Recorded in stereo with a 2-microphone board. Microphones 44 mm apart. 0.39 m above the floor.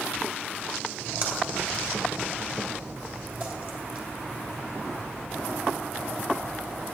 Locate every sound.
1.0 s a splash: 40° right (ahead or behind), 2.5 m